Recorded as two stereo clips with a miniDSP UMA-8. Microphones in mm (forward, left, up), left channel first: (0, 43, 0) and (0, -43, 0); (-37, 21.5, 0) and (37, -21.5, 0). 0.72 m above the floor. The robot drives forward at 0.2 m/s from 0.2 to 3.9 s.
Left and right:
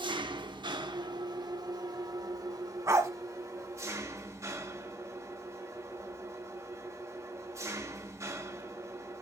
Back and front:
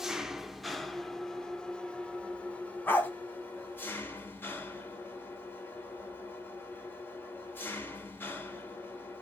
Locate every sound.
0.0 s an engine running: 115° right, 0.8 m; by 9.2 s 145° right, 1.3 m
2.9 s a dog barking: 145° right, 1.4 m